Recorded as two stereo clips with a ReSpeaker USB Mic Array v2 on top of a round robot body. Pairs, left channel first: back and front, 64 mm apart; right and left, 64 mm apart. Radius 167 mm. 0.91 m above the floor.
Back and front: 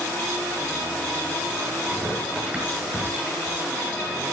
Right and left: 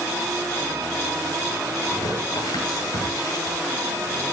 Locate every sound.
1.8 s tearing paper: 75° right, 7 m